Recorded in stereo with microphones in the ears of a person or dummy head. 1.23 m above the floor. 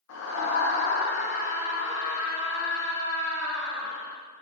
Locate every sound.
0.1 s a scream: 80° left, 0.6 m; by 4.2 s 20° left (ahead or behind), 2.5 m